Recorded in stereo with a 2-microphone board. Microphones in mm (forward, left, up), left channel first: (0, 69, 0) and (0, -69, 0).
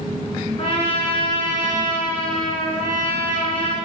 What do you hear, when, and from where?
0.6 s a trumpet: 40° left (ahead or behind), 1.6 m